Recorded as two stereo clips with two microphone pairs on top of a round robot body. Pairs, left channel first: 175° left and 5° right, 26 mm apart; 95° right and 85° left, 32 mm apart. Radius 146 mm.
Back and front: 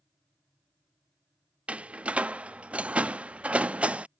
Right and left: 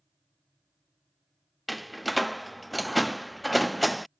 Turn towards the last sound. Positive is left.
turn(degrees=-15)